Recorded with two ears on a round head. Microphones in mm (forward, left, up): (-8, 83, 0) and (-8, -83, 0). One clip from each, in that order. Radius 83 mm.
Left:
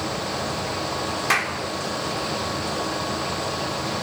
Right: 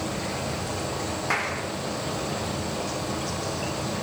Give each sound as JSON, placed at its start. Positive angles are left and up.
{"t": 1.3, "sound": "a clap", "side_deg": 80, "distance_m": 3.5}